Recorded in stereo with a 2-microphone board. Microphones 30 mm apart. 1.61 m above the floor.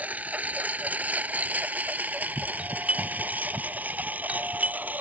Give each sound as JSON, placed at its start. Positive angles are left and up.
{"t": 0.0, "sound": "a lawn mower", "side_deg": -60}
{"t": 2.6, "sound": "a doorbell", "side_deg": -55}